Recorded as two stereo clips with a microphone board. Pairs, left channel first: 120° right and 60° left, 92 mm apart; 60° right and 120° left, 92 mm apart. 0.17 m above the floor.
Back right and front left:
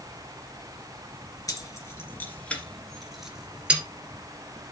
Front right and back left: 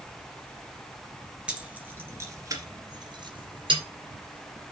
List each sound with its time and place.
1.5 s keys jangling: 165° right, 2 m; by 3.8 s 135° left, 2.5 m